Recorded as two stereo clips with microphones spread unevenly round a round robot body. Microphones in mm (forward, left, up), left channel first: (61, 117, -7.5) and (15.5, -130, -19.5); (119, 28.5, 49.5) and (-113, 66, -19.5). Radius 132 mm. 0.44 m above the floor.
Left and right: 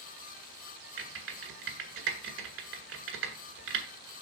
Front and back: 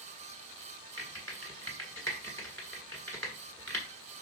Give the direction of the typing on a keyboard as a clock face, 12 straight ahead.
3 o'clock.